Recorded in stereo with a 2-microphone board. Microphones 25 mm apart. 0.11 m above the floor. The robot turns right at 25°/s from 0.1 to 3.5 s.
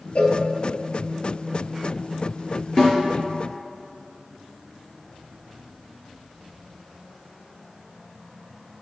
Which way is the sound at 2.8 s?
30° left (ahead or behind).